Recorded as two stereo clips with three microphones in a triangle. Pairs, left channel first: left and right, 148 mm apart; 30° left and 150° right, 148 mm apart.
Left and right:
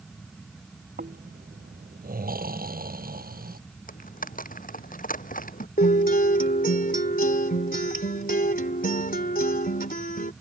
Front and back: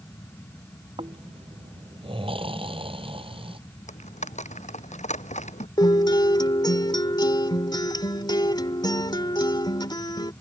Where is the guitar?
90° left.